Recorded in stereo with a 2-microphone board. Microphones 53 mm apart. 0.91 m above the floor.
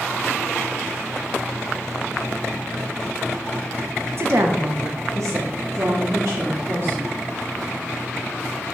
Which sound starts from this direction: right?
A woman speaking, at 4.2 s.